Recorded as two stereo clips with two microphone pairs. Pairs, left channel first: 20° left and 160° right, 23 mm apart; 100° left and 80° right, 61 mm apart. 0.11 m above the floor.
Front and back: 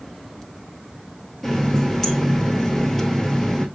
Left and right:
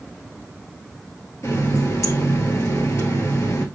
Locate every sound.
1.4 s a running tap: 85° left, 1.4 m